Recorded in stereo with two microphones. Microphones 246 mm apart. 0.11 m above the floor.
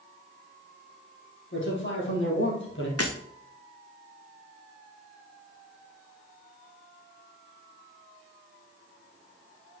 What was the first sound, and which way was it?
A man speaking, 50° left (ahead or behind).